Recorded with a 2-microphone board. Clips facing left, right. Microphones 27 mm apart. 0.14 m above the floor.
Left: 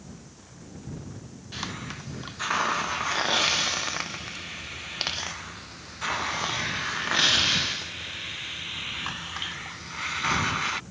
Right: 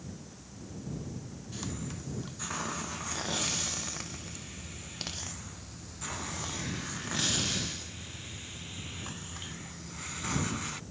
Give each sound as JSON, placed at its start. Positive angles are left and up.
{"t": 1.5, "sound": "a hiss", "side_deg": 50}